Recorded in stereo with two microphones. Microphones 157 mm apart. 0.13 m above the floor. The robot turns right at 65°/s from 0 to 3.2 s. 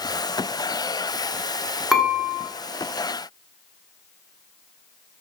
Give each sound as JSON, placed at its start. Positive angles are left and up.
{"t": 1.9, "sound": "dishes clattering", "side_deg": 0, "distance_m": 0.8}